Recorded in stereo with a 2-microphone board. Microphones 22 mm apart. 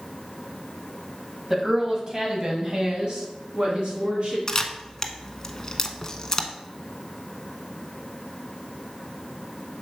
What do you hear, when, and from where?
1.5 s a woman speaking: 15° right (ahead or behind), 1.6 m; by 4.4 s 55° right (ahead or behind), 3 m
4.5 s a camera shutter: 25° left (ahead or behind), 0.7 m